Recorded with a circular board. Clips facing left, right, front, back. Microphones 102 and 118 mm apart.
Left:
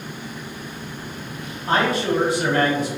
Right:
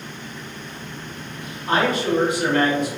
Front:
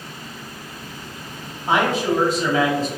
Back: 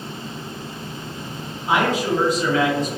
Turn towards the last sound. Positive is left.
turn(degrees=50)